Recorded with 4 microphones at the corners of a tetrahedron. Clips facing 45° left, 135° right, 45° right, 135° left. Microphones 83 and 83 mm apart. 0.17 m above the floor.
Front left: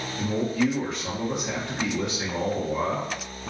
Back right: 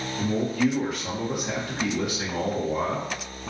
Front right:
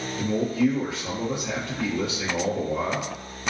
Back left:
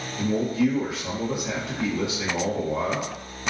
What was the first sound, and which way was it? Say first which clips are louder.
A man speaking: back right 1 dB, even; 170° left.